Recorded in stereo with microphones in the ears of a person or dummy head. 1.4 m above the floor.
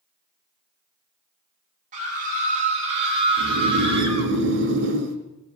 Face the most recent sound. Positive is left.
turn(degrees=-60)  # may be behind; listen again after turning